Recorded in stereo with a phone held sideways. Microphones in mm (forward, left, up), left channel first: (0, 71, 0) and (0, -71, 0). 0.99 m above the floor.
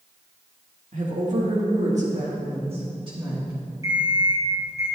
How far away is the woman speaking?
About 1.7 m.